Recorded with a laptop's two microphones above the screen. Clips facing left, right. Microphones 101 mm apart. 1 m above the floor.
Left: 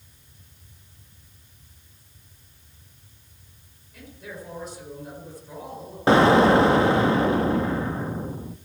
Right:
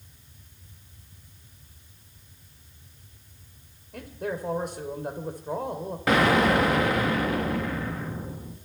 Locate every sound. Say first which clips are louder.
3.9 s a man speaking: right 8 dB; 55° right (ahead or behind), 3.5 m
6.1 s an explosion: left 5 dB; 30° left (ahead or behind), 1.2 m